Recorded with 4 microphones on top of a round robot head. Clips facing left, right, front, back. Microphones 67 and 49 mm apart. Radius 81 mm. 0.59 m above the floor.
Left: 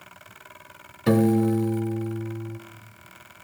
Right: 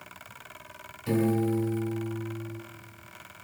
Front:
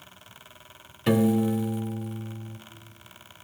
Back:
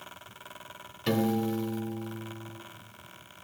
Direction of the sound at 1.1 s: 75° left.